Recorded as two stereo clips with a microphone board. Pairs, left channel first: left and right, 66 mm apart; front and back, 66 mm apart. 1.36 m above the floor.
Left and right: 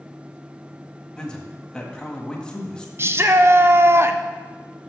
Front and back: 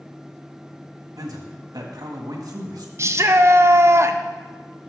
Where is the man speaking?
165° left, 1.5 m.